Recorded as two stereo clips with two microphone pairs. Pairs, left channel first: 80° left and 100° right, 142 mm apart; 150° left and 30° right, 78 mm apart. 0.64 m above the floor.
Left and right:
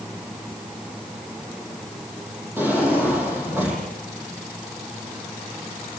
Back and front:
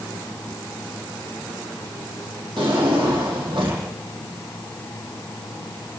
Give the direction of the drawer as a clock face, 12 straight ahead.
1 o'clock.